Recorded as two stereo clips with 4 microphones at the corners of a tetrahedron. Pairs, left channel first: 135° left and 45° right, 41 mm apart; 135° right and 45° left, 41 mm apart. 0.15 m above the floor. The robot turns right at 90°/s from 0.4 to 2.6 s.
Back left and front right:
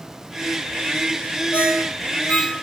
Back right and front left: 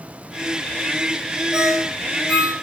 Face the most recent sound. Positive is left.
turn(degrees=-155)